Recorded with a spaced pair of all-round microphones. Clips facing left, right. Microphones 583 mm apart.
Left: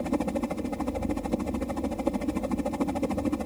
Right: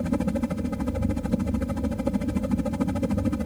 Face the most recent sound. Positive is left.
turn(degrees=-40)  # may be behind; listen again after turning